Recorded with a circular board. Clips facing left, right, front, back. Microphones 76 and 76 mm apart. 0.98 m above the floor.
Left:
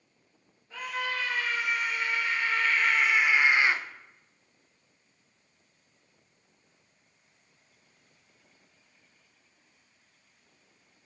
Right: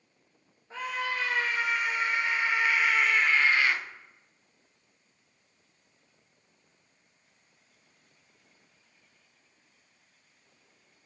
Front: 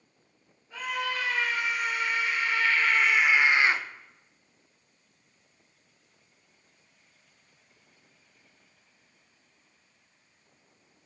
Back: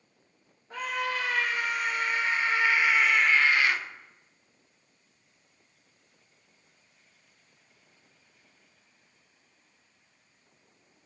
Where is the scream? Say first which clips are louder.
Right 1 dB, back 1 dB; 145° right, 1.6 m; by 3.8 s 40° left, 0.8 m.